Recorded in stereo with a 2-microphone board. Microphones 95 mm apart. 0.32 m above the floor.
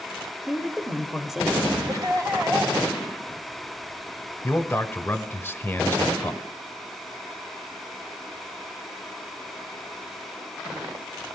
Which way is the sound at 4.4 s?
25° left (ahead or behind).